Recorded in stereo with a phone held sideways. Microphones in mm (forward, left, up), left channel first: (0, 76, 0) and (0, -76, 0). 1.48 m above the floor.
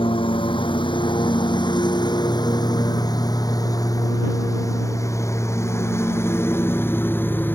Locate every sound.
0.0 s a lawn mower: 35° left (ahead or behind); by 7.6 s 10° left (ahead or behind)